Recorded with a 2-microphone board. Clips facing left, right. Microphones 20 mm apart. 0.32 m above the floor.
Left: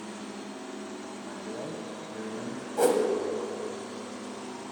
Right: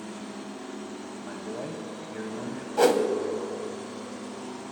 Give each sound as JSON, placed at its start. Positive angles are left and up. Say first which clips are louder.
{"t": 1.2, "sound": "a man speaking", "louder": "right 3 dB", "side_deg": -35, "distance_m": 1.5}
{"t": 2.8, "sound": "a whoosh", "louder": "right 3 dB", "side_deg": -45, "distance_m": 0.8}